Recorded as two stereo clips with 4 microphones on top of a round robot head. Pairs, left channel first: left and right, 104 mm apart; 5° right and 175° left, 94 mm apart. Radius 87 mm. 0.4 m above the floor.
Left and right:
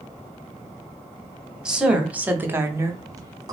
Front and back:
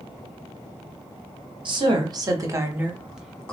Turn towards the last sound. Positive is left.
turn(degrees=-75)